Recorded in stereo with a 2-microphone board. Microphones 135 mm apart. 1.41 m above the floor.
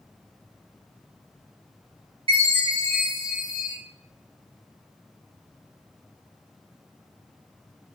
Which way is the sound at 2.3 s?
40° right (ahead or behind).